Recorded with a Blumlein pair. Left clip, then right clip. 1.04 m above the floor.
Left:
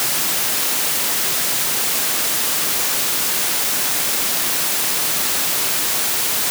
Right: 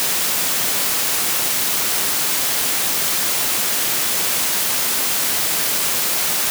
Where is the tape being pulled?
I don't hear tape being pulled.